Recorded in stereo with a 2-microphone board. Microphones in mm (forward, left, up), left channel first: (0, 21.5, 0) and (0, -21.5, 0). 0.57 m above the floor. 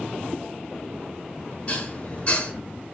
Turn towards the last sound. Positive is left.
turn(degrees=30)  # may be behind; listen again after turning